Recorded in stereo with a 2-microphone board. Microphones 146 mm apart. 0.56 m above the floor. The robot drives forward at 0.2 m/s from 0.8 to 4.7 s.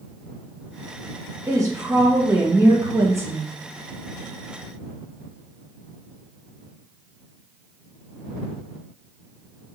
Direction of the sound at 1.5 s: 20° right (ahead or behind).